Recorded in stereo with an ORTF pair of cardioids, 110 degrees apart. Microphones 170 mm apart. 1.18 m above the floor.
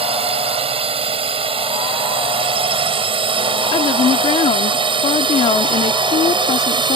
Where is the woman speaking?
35° left.